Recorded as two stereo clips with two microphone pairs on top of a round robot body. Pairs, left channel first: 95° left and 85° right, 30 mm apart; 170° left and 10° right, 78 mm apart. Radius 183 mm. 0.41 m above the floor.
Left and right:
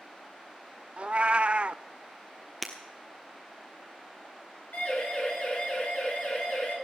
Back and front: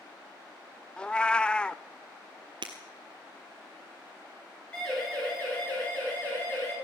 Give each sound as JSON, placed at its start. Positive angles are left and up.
{"t": 1.0, "sound": "a cat meowing", "azimuth_deg": -125, "distance_m": 0.5}
{"t": 2.6, "sound": "breaking glass", "azimuth_deg": 5, "distance_m": 0.7}
{"t": 4.7, "sound": "a siren", "azimuth_deg": 90, "distance_m": 7.5}